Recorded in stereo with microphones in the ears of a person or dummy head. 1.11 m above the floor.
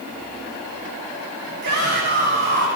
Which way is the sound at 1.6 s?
60° right (ahead or behind).